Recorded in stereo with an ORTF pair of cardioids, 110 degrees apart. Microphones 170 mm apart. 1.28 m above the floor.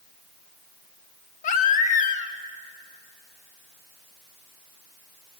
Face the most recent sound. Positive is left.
turn(degrees=50)